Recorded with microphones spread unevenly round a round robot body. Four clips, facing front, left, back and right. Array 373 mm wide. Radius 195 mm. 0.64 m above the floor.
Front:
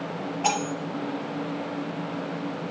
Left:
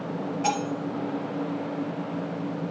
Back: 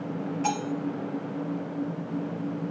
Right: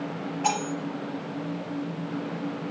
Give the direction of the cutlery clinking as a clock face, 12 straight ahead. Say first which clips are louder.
Even, front 4 dB; 7 o'clock.